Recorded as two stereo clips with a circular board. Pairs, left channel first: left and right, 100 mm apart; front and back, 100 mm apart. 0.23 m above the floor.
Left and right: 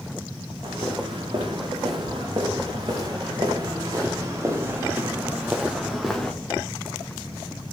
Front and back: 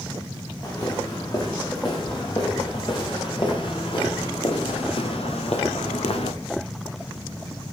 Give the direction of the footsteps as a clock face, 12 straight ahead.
2 o'clock.